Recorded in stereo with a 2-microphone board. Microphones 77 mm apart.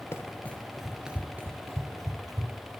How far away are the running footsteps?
About 1.0 m.